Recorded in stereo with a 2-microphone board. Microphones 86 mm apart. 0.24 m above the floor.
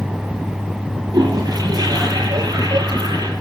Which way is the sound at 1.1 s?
50° right (ahead or behind).